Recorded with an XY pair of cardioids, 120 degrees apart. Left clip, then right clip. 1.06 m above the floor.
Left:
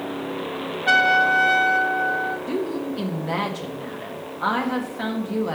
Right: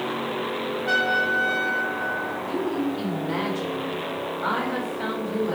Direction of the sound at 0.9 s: 60° left.